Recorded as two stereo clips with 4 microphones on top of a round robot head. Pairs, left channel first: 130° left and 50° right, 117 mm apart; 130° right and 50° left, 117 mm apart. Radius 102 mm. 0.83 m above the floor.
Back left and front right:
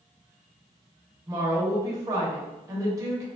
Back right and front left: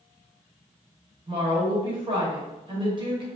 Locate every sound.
1.3 s a woman speaking: 10° left, 1.1 m